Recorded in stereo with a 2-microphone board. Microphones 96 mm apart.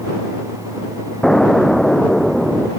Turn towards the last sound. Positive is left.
turn(degrees=5)  # may be behind; listen again after turning